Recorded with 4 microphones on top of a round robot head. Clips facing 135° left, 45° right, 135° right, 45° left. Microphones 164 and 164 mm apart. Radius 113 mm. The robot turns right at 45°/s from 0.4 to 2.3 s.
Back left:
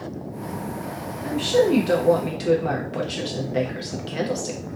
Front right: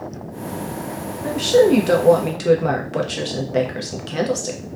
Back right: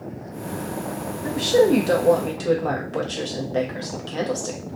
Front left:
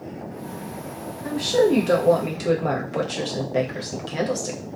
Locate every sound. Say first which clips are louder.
1.2 s a woman speaking: front right 5 dB, back right 2 dB; 85° right, 0.8 m; by 4.7 s 35° right, 0.8 m